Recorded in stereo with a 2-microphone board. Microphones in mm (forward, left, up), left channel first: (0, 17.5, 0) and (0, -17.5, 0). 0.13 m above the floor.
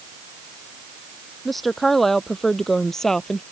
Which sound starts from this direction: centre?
A woman speaking, at 1.4 s.